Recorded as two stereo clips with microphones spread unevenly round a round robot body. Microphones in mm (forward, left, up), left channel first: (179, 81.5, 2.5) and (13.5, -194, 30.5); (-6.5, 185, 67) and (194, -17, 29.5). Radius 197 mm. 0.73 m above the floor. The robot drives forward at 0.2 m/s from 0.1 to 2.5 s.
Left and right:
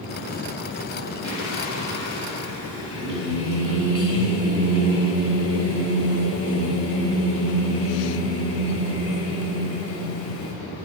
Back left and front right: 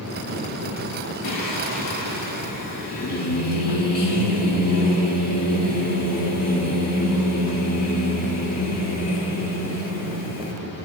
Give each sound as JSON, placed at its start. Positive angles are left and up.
{"t": 1.2, "sound": "singing", "azimuth_deg": 170, "distance_m": 1.6}